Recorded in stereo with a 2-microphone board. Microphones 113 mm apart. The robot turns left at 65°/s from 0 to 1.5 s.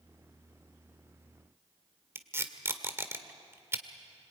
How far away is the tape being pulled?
About 1.6 m.